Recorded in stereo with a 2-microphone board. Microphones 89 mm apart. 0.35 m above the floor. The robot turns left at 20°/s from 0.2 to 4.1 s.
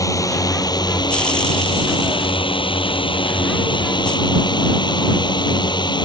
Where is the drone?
140° left; by 6.1 s 60° left.